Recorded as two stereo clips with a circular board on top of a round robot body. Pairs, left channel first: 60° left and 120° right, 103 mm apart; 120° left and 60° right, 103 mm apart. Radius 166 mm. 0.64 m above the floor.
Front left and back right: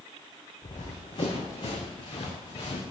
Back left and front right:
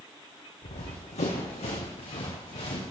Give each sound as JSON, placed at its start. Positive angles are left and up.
{"t": 0.6, "sound": "running footsteps", "azimuth_deg": 110, "distance_m": 3.0}